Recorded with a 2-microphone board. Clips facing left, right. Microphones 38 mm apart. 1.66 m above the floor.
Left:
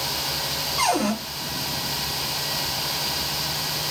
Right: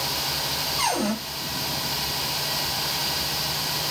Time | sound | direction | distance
0.8 | a cupboard door | 70° left (ahead or behind) | 1.3 m